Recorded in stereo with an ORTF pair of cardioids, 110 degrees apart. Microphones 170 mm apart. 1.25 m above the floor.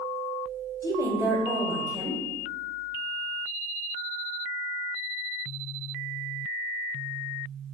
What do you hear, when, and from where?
0.8 s a woman speaking: 20° right, 1.0 m